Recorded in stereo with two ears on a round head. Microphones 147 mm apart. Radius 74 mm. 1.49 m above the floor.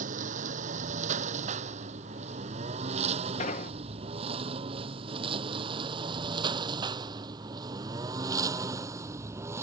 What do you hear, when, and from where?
0.0 s a lawn mower: 50° right (ahead or behind); by 9.6 s 15° right (ahead or behind)
3.4 s an explosion: 45° left (ahead or behind)